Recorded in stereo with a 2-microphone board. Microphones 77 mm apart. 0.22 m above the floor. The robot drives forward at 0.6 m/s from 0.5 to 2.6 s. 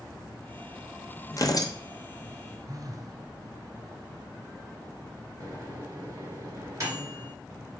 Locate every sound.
1.3 s tearing paper: 45° left (ahead or behind), 1.1 m; by 1.7 s 60° left (ahead or behind), 1.0 m
2.7 s a phone buzzing: 50° right (ahead or behind), 0.8 m
5.4 s a microwave: 40° right (ahead or behind), 2.5 m